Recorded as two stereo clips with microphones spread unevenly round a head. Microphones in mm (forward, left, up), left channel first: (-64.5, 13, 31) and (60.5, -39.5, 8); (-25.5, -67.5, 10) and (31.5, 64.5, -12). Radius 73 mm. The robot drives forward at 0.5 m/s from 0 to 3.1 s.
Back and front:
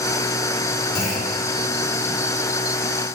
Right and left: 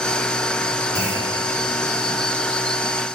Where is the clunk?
175° left, 4 m.